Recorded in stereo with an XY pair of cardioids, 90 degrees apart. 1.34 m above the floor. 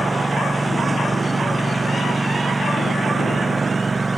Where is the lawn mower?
20° right; by 4.2 s 30° right.